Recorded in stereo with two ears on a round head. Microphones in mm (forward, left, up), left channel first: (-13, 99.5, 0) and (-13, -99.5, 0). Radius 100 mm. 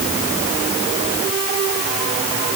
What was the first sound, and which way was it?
Only background noise.